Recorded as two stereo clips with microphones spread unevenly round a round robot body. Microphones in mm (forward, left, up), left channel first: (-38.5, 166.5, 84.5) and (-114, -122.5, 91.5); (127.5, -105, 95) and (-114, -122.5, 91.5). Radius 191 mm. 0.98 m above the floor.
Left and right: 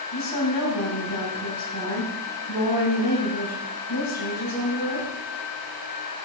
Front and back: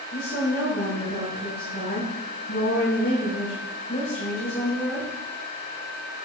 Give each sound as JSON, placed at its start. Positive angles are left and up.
{"t": 0.1, "sound": "a woman speaking", "azimuth_deg": 60, "distance_m": 6.0}